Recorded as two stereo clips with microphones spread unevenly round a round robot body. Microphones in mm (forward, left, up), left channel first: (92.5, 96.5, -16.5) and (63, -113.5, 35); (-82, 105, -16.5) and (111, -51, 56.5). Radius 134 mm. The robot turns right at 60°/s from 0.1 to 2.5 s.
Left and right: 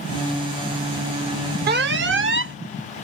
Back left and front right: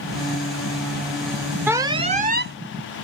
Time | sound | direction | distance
1.7 | an alarm | 140° right | ?